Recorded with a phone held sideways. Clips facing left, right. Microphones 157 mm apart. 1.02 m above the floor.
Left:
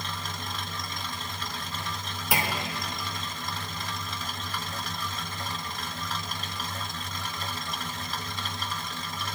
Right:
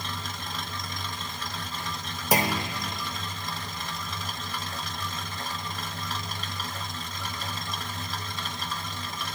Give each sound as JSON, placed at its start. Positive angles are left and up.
{"t": 2.3, "sound": "a clunk", "side_deg": -40, "distance_m": 0.8}